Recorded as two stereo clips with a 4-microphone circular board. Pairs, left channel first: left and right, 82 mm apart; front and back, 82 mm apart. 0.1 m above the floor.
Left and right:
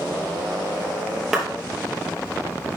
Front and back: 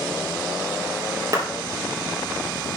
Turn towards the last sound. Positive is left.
turn(degrees=-170)